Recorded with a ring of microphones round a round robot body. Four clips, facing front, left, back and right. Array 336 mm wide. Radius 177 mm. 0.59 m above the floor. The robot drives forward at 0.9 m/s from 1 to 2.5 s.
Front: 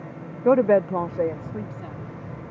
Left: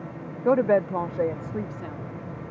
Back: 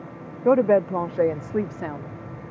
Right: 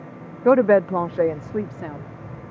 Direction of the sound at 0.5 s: 85° right.